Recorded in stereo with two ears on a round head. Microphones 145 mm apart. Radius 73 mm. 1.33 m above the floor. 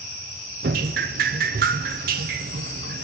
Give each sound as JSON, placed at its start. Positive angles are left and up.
{"t": 0.6, "sound": "dripping", "side_deg": -60, "distance_m": 0.6}